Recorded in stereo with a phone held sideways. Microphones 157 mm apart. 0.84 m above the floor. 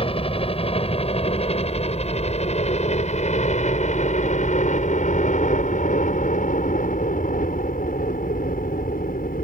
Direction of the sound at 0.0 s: 35° left (ahead or behind).